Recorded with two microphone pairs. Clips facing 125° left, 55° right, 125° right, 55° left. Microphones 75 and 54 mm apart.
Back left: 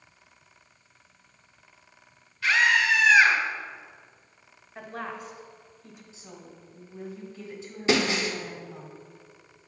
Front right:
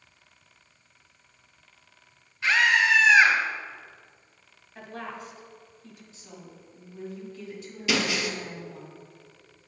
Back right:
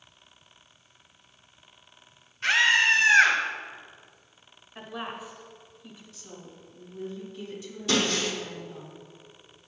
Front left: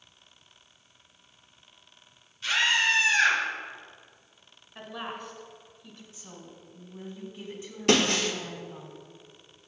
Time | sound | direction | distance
2.4 | a scream | 115° right | 1.7 m
4.8 | a woman speaking | 160° left | 1.0 m
6.1 | a woman speaking | 80° left | 1.6 m
7.9 | breaking glass | 70° left | 0.9 m